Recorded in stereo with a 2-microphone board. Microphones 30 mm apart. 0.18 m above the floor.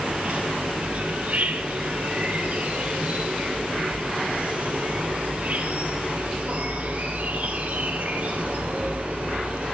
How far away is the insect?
About 2 m.